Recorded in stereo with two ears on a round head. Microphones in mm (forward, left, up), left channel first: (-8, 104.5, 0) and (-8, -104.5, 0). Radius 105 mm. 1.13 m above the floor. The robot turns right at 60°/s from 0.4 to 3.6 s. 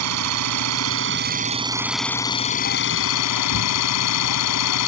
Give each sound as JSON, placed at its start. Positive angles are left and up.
{"t": 0.0, "sound": "an engine running", "azimuth_deg": -95}